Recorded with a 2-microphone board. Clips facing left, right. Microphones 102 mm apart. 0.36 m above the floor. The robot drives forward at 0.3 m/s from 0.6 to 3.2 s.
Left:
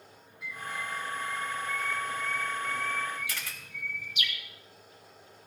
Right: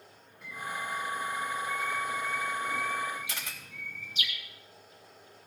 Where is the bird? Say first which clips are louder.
Right 1 dB; 45° right (ahead or behind), 1.9 m; by 4.3 s 35° right (ahead or behind), 2.5 m.